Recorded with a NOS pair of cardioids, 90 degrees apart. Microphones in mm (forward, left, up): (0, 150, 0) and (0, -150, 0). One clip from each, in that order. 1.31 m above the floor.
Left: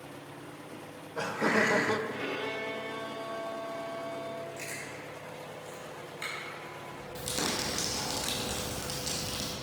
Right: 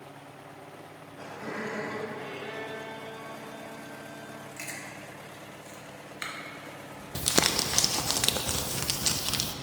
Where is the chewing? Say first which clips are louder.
Even; 45° right, 2 m.